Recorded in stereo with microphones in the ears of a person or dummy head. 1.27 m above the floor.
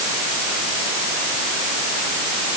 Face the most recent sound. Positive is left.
No sound to turn to.